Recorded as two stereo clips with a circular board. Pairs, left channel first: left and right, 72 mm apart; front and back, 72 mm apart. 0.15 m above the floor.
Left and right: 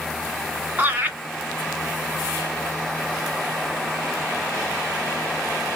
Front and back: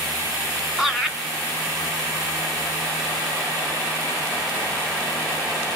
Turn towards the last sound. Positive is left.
turn(degrees=-105)